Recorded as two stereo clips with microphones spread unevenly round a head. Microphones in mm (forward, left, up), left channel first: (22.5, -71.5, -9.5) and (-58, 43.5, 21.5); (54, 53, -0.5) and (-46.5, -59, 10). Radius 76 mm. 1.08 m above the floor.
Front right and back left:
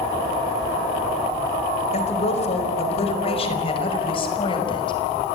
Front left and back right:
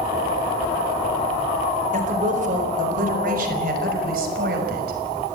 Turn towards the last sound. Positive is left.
turn(degrees=-110)